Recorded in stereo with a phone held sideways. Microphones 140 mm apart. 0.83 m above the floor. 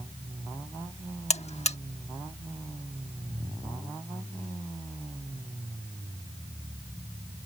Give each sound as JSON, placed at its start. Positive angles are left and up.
{"t": 1.3, "sound": "a buzzer", "side_deg": 55}